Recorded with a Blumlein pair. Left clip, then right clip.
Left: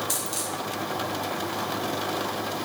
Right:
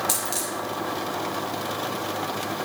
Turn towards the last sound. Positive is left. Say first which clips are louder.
# right 2 dB
turn(degrees=-50)